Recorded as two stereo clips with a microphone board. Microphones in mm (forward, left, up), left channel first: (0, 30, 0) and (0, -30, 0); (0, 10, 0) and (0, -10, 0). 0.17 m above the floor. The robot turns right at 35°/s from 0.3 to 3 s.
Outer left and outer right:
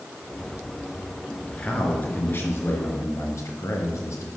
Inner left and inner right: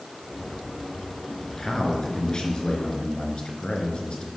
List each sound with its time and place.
1.5 s a man speaking: 20° left, 3 m; by 4.3 s 70° left, 3 m